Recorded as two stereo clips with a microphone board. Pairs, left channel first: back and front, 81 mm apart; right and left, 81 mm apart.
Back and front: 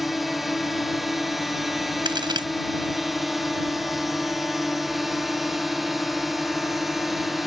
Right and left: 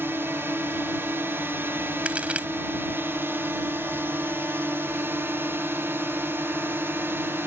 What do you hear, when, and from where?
0.0 s a drone: 85° left
2.0 s a crack: 15° left